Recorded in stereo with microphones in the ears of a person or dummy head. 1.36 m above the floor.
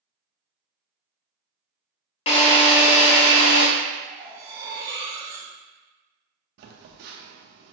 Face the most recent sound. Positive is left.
turn(degrees=-60)  # may be behind; listen again after turning